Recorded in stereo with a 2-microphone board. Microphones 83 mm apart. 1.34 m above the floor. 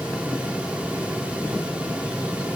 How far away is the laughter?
No laughter in this recording.